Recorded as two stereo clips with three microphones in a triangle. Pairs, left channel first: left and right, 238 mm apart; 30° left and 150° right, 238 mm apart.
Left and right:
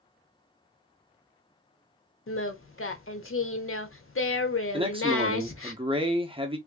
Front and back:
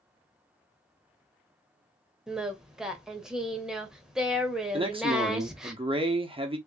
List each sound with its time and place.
2.3 s singing: 125° left, 0.7 m
4.7 s a man speaking: 120° right, 0.8 m